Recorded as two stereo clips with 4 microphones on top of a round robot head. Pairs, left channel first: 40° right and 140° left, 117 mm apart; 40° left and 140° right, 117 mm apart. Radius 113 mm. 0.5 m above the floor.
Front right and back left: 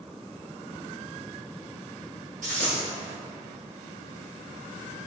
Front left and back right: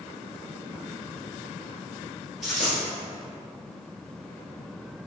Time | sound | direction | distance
2.4 | a dropped coin | 135° left | 1.1 m